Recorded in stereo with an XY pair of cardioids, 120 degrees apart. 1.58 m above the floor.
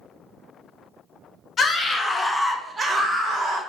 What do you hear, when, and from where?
1.6 s a scream: 40° left, 0.8 m; by 3.6 s 60° right, 0.8 m